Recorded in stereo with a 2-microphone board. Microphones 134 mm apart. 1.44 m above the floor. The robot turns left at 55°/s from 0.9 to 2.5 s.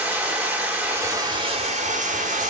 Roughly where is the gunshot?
No gunshot in this recording.